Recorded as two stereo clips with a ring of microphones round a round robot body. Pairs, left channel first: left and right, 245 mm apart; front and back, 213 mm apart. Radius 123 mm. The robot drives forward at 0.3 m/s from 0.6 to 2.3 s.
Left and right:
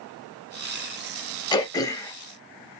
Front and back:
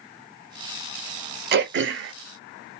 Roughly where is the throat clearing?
Behind.